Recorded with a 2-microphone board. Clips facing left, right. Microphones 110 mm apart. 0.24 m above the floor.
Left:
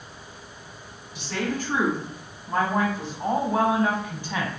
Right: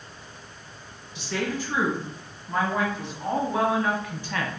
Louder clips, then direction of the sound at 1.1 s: Even; 55° left (ahead or behind).